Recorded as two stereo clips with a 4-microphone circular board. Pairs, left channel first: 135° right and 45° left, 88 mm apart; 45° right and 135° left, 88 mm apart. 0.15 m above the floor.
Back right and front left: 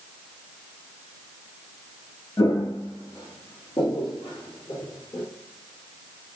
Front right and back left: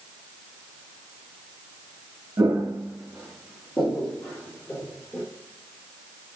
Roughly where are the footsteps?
Behind.